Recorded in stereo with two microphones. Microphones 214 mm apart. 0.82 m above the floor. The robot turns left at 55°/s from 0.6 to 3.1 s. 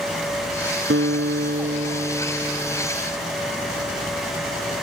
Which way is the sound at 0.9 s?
85° right.